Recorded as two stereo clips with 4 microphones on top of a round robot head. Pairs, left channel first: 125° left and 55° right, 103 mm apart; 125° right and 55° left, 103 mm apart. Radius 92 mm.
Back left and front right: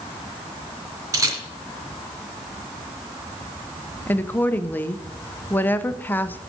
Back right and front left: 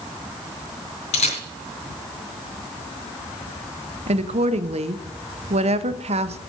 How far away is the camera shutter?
About 3 m.